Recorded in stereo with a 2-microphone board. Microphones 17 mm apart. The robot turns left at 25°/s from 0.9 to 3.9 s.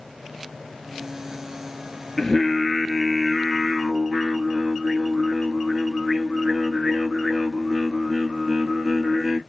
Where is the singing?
15° left, 1.1 m; by 9.4 s 25° right, 1.1 m.